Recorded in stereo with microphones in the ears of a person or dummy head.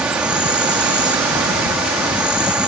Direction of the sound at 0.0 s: 10° right (ahead or behind).